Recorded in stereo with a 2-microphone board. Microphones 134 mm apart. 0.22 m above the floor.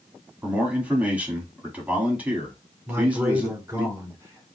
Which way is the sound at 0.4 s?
10° right (ahead or behind).